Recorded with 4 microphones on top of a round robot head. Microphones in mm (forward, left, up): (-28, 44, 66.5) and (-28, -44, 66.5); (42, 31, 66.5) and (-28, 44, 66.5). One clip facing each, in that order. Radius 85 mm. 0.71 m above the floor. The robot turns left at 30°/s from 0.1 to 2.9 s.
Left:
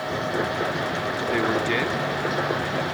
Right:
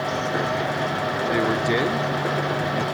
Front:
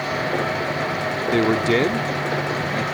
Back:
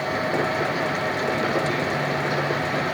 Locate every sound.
1.3 s a man speaking: 5° right; by 2.8 s 50° right